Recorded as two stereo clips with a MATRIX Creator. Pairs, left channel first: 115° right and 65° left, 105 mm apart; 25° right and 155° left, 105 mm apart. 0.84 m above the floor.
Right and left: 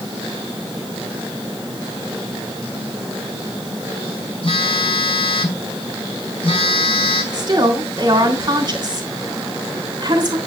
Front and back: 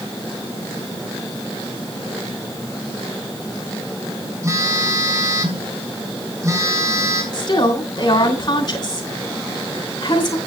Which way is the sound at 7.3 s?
25° left.